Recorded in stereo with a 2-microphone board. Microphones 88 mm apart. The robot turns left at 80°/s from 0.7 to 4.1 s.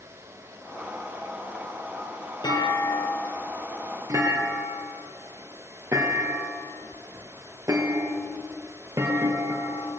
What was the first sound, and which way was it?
A clunk, 55° left (ahead or behind).